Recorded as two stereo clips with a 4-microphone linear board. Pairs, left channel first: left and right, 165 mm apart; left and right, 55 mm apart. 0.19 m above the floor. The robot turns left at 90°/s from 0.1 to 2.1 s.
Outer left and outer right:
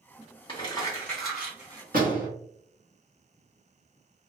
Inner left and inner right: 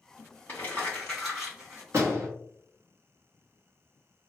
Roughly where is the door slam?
Right.